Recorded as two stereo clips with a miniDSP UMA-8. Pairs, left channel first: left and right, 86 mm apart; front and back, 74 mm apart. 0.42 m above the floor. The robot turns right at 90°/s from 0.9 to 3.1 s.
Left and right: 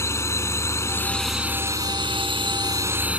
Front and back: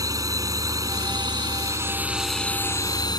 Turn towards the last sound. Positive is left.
turn(degrees=-15)